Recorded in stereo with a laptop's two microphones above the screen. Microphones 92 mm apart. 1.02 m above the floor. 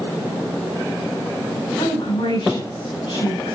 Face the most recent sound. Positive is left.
turn(degrees=85)